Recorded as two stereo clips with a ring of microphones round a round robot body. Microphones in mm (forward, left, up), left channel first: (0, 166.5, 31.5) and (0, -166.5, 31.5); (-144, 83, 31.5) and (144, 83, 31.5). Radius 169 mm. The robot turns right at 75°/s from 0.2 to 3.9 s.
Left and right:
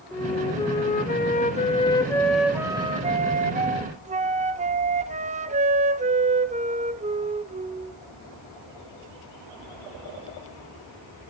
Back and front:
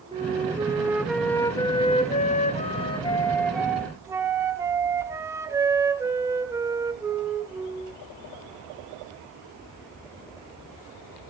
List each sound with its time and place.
0.1 s a flute: 20° left, 0.6 m; by 8.0 s 65° right, 0.6 m